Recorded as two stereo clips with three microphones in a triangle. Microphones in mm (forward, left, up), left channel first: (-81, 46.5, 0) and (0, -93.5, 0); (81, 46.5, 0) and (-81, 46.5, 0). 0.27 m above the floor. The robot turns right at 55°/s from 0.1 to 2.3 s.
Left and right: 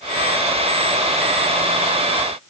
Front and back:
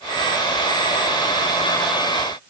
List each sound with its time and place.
Only background noise.